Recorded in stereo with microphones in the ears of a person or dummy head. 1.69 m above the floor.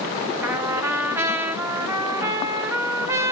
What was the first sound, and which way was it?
A trumpet, 25° right (ahead or behind).